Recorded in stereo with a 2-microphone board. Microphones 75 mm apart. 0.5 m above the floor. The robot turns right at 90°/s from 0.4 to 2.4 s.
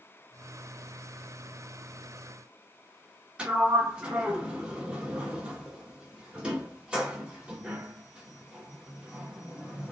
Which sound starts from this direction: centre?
A sliding door, at 3.4 s.